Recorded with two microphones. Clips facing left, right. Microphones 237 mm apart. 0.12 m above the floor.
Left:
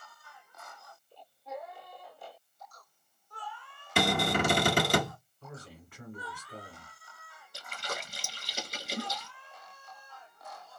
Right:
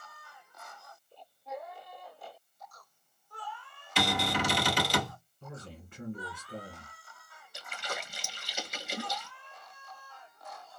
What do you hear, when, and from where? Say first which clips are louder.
4.0 s a cupboard door: left 3 dB; 55° left (ahead or behind), 0.9 m
5.4 s a man speaking: right 2 dB; 25° right (ahead or behind), 1.5 m
7.5 s a splash: even; 50° left (ahead or behind), 0.9 m